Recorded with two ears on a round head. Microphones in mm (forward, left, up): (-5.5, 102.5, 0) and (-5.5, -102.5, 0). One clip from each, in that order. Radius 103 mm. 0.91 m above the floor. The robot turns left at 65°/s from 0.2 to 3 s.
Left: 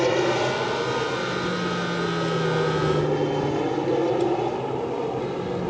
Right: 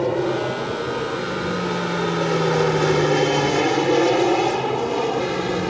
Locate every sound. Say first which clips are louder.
0.0 s an aircraft: even; 65° left (ahead or behind); by 5.7 s 65° right (ahead or behind)